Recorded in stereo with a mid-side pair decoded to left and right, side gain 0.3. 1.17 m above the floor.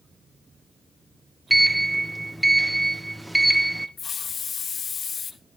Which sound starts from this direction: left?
A hiss, at 4.0 s.